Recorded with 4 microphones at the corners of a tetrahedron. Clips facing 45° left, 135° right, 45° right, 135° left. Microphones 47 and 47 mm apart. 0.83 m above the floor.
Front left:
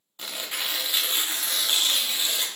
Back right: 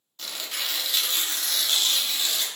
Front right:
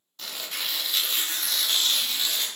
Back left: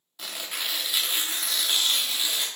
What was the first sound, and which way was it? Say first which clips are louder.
Tearing paper: front left 1 dB, even; 70° left.